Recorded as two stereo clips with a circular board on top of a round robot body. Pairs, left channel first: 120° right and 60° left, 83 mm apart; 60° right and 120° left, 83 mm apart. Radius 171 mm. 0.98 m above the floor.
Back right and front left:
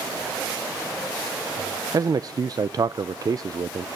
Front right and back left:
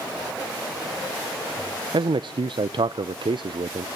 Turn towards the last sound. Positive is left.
turn(degrees=100)